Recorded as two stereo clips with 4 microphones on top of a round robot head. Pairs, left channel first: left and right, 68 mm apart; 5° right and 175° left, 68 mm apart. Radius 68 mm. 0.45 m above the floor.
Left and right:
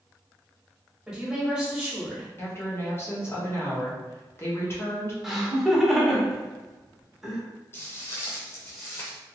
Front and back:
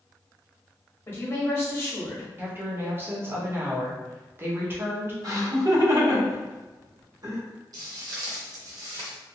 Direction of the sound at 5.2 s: 175° right.